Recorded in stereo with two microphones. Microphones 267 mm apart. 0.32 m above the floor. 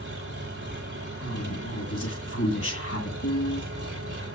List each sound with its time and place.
0.0 s an engine running: 45° right (ahead or behind), 8.5 m
1.2 s a woman speaking: 55° left (ahead or behind), 2.5 m
3.2 s a piano: 80° left, 6 m